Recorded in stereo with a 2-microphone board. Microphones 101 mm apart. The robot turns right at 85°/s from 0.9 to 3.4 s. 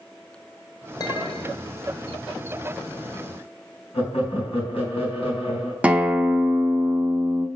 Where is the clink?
35° left, 1.2 m; by 1.6 s 90° left, 1.2 m.